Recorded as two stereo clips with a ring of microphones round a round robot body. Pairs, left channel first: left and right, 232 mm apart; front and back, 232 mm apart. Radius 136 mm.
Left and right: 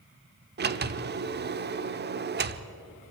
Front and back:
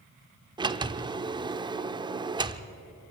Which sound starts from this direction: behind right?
A sliding door, at 0.6 s.